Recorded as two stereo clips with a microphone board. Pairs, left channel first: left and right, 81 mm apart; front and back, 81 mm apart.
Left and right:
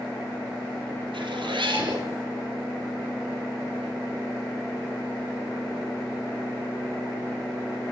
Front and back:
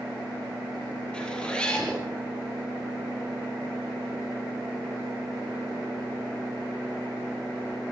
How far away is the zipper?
About 8 m.